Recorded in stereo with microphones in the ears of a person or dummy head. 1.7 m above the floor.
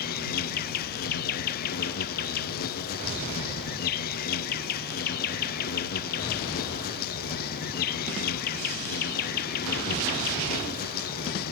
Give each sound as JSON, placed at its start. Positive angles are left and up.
{"t": 0.0, "sound": "an insect", "side_deg": 55}